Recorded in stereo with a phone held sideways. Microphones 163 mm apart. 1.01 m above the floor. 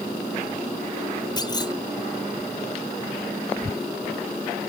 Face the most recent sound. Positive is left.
turn(degrees=25)  # may be behind; listen again after turning